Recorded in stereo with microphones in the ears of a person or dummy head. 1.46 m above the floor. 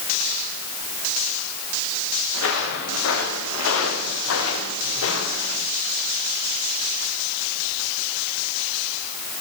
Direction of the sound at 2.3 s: 70° left (ahead or behind).